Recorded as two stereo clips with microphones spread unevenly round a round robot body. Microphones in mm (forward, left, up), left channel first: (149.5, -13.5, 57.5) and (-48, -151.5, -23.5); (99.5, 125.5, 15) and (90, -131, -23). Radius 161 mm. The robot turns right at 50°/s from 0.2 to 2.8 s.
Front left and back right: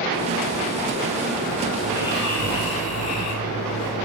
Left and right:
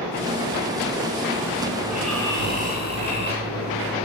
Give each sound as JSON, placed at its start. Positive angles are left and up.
{"t": 1.8, "sound": "snoring", "azimuth_deg": -10, "distance_m": 4.5}